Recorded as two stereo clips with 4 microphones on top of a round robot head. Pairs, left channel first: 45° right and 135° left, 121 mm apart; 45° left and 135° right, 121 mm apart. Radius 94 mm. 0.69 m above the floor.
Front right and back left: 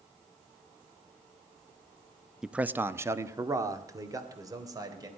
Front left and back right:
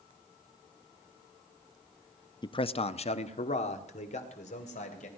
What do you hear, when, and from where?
2.4 s a man speaking: 50° left, 0.6 m; by 5.1 s 75° left, 3 m